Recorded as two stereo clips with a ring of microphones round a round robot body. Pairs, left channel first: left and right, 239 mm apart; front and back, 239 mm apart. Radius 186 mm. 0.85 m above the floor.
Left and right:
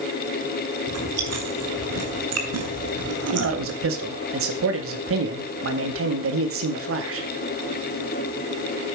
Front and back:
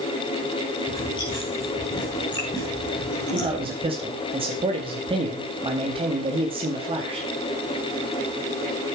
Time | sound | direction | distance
0.9 | chewing | 75° right | 3 m
3.3 | a man speaking | 110° right | 2 m